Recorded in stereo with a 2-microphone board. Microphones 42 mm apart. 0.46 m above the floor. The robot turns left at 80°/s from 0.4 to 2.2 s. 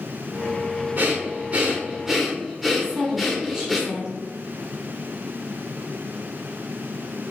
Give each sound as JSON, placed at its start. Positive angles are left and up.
{"t": 1.0, "sound": "breathing", "azimuth_deg": -80, "distance_m": 0.9}
{"t": 2.8, "sound": "a woman speaking", "side_deg": -15, "distance_m": 1.4}